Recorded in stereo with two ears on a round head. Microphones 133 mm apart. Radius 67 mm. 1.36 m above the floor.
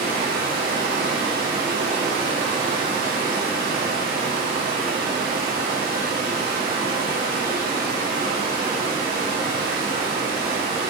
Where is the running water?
35° right (ahead or behind), 6.5 m.